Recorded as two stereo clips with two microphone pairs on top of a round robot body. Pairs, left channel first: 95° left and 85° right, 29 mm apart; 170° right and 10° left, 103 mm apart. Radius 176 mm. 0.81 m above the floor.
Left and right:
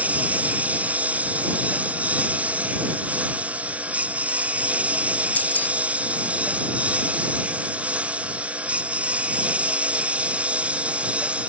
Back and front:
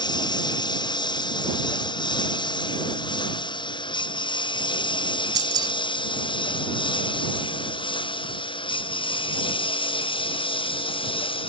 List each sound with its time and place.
0.0 s a lawn mower: 120° right; by 11.5 s 130° right
5.3 s keys jangling: 65° left